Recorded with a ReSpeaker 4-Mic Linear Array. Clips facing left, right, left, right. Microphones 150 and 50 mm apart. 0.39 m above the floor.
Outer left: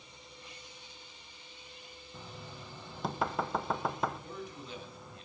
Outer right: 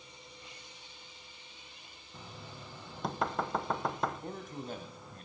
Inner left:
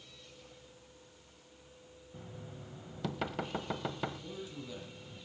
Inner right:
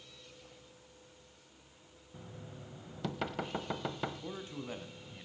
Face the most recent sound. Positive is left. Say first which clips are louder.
# outer right 3 dB, inner right 2 dB
turn(degrees=-50)  # may be behind; listen again after turning